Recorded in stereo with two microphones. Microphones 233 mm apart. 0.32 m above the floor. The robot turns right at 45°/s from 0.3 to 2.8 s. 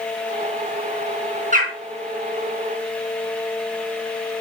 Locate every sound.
1.5 s a bird: 30° right (ahead or behind), 2.5 m; by 1.7 s 40° right (ahead or behind), 2.5 m